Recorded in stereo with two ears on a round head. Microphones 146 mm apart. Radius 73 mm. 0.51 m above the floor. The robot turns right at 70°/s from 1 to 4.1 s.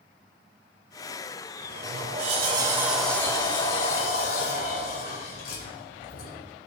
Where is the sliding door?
100° right, 2 m; by 6.5 s 75° left, 2 m.